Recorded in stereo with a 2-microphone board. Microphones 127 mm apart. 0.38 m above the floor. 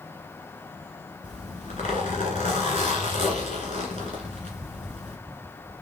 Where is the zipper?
80° left, 1.7 m.